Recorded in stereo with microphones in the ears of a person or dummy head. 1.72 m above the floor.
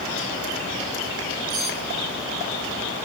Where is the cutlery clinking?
20° right (ahead or behind), 3 m.